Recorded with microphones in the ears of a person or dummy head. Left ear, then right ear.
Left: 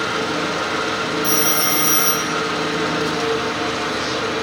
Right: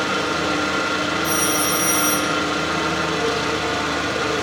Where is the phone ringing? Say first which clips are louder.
Left 3 dB; 15° left (ahead or behind), 0.6 m.